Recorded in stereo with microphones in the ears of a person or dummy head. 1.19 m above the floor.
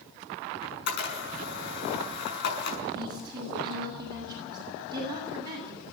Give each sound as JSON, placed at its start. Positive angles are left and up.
{"t": 0.6, "sound": "a camera shutter", "side_deg": 65, "distance_m": 6.5}
{"t": 3.0, "sound": "a woman speaking", "side_deg": -25, "distance_m": 8.0}